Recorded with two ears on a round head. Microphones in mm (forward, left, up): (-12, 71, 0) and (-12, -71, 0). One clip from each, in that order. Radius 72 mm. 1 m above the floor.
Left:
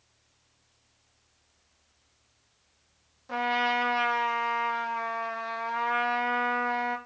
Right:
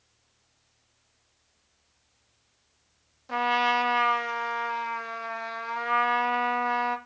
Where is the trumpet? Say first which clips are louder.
Right 3 dB; 15° right (ahead or behind), 0.7 m.